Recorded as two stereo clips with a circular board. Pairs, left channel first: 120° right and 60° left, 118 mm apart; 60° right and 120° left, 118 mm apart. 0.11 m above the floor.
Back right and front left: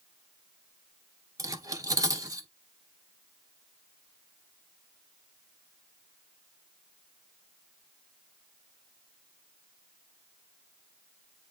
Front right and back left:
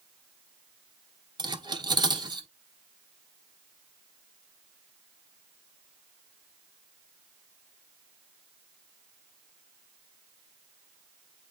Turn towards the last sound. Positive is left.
turn(degrees=105)